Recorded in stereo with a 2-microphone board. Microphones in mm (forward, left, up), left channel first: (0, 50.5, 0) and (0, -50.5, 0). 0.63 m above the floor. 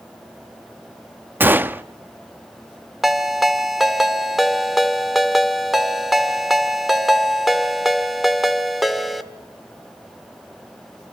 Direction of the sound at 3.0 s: Centre (ahead or behind).